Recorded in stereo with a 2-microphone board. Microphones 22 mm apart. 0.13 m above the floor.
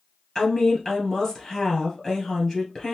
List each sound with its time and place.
0.3 s a woman speaking: 25° left (ahead or behind), 2 m